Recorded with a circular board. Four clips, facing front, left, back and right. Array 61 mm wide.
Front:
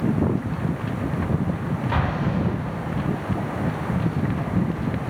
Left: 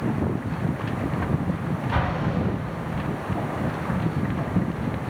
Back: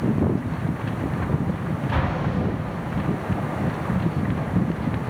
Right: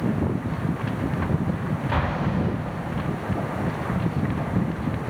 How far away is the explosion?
About 0.9 m.